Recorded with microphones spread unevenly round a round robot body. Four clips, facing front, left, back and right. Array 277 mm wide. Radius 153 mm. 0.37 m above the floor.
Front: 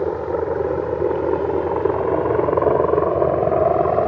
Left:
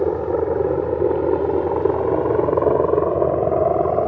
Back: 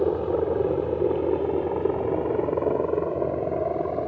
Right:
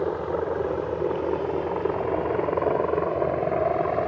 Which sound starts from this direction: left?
A helicopter, at 0.0 s.